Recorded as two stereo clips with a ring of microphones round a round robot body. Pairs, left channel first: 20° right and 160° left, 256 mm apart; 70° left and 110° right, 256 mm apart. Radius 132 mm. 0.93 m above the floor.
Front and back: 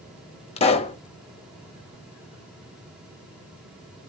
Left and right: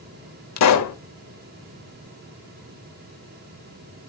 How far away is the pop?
About 1.0 m.